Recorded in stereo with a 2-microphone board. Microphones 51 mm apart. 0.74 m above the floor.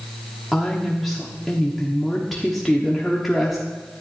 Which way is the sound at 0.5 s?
5° left (ahead or behind).